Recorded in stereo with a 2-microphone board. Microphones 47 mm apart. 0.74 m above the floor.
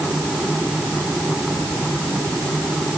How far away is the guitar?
No guitar in this recording.